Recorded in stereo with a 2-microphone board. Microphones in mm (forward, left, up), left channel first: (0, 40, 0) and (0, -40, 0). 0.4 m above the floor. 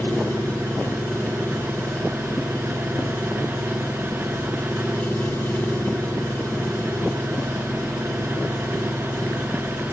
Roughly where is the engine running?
Left.